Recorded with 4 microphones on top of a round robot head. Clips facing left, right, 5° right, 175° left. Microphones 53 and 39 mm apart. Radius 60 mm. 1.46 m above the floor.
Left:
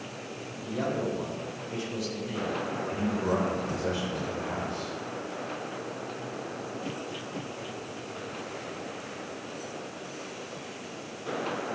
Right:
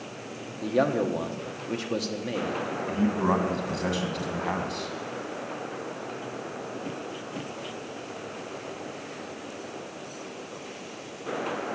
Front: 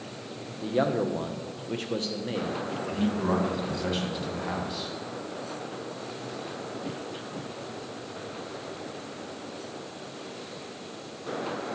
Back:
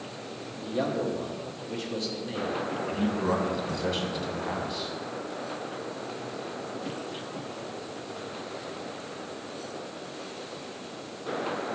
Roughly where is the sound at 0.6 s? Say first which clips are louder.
Right 6 dB, front 3 dB; ahead right.